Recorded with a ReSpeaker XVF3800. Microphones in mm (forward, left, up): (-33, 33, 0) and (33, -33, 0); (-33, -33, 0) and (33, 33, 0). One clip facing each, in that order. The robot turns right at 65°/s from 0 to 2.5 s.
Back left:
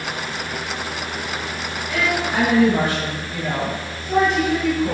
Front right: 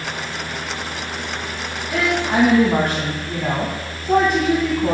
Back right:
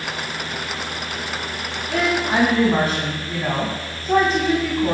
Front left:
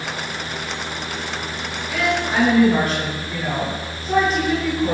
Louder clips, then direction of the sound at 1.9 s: Front right 3 dB, back right 1 dB; 115° right.